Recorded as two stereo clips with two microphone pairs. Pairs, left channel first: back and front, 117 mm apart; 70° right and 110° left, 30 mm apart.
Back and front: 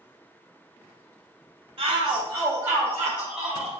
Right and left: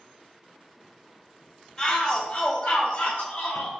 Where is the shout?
15° right, 0.9 m; by 3.7 s 90° right, 1.8 m.